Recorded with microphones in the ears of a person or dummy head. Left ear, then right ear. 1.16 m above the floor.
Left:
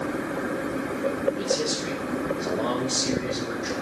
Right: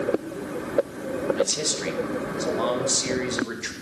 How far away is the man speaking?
About 1.5 m.